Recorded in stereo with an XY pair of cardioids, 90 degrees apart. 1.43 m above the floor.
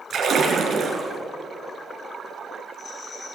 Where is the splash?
50° right, 4.5 m.